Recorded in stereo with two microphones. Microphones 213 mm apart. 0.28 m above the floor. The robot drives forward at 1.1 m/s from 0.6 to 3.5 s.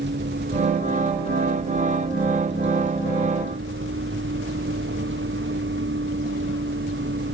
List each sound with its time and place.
0.0 s a vehicle: 55° right (ahead or behind); by 7.3 s 65° right (ahead or behind)